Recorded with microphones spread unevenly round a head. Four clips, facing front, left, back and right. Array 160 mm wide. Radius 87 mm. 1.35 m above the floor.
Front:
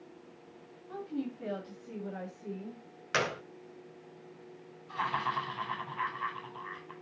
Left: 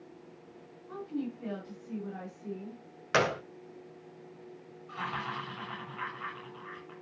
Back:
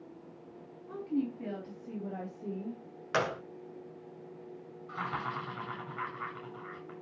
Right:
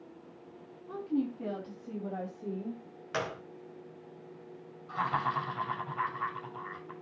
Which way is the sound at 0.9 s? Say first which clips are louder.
Right 4 dB, back 4 dB; 130° right.